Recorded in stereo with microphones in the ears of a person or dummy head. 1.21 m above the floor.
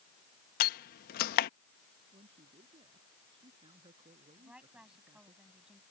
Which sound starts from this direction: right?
A man speaking, at 2.1 s.